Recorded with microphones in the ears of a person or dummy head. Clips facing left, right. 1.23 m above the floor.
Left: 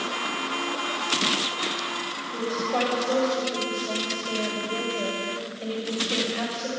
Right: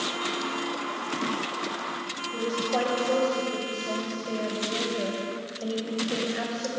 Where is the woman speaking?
5° right (ahead or behind), 5.5 m.